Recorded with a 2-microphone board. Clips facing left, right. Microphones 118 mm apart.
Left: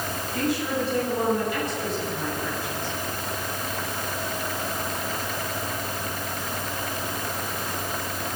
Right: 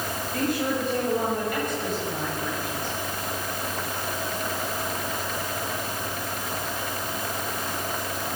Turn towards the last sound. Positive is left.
turn(degrees=-50)  # may be behind; listen again after turning